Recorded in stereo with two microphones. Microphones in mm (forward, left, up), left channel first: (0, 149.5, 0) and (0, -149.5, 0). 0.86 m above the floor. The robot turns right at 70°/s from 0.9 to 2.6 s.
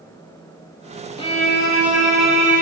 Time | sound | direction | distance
1.2 | a violin | 20° left | 1.1 m